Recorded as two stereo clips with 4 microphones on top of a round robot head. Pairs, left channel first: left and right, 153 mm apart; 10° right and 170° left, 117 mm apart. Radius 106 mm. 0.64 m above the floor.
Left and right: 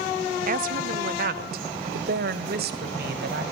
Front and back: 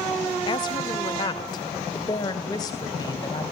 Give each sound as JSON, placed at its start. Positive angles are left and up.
{"t": 0.5, "sound": "a woman speaking", "azimuth_deg": -60, "distance_m": 1.4}